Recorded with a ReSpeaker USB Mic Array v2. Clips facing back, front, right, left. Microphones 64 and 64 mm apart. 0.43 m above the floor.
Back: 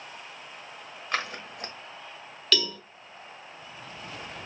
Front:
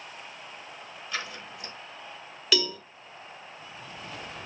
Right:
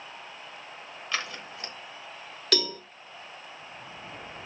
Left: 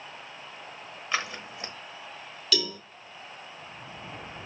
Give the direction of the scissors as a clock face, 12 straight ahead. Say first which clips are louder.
Back 5 dB, left 2 dB; 7 o'clock.